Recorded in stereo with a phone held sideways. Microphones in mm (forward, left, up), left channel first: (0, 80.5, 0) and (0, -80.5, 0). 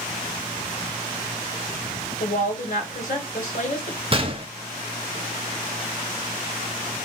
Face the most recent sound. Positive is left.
turn(degrees=-35)  # may be behind; listen again after turning